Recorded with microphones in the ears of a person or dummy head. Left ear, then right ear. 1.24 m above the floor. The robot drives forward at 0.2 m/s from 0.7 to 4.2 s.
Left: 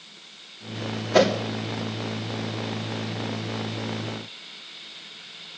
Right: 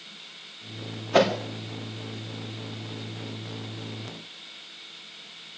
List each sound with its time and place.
1.1 s a whoosh: 35° right (ahead or behind), 2.5 m